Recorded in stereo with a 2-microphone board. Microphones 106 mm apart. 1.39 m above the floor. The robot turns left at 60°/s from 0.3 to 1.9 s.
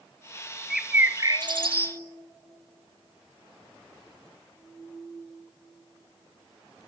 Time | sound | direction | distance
0.7 | a bird | straight ahead | 2 m